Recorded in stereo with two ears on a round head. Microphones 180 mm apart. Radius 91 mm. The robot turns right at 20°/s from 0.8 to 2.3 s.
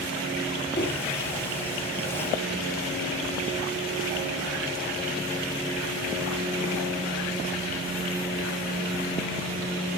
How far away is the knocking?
About 8.5 m.